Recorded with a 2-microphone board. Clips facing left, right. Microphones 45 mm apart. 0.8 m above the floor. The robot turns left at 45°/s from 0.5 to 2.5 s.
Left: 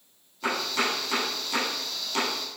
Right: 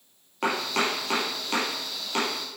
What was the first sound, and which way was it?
Chopping, 80° right.